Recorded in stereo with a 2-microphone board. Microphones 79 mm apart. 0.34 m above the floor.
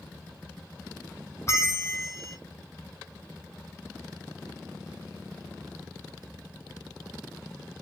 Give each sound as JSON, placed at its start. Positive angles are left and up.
{"t": 1.5, "sound": "a bell", "side_deg": 35, "distance_m": 0.8}